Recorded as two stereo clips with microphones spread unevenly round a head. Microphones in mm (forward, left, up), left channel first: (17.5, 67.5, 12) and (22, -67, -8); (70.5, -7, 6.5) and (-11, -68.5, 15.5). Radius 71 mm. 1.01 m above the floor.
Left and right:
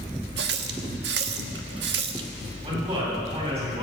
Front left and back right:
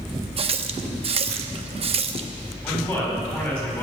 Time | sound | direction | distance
0.4 | a running tap | 110° right | 1.0 m
2.6 | a man speaking | 40° right | 8 m